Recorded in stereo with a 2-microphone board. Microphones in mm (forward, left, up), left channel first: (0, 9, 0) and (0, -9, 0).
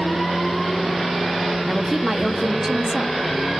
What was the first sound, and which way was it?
A woman speaking, 35° right (ahead or behind).